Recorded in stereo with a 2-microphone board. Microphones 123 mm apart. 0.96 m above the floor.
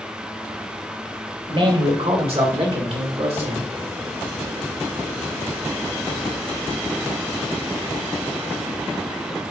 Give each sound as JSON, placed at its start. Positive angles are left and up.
{"t": 1.5, "sound": "a man speaking", "side_deg": -55, "distance_m": 4.0}